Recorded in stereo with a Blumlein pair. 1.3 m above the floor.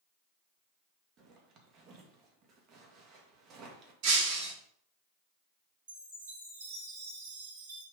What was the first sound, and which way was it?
A zipper, 35° right.